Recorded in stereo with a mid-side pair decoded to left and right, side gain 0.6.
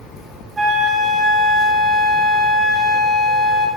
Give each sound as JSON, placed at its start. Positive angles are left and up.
{"t": 0.6, "sound": "a flute", "azimuth_deg": -30, "distance_m": 3.0}